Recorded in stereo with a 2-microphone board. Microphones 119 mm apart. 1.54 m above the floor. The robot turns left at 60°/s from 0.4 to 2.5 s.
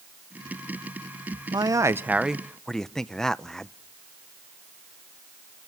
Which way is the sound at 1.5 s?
130° right.